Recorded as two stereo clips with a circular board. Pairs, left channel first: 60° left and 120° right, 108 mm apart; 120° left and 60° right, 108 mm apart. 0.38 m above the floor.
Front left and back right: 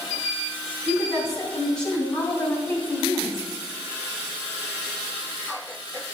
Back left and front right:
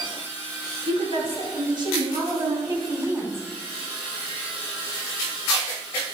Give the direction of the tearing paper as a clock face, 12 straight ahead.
I don't hear tearing paper.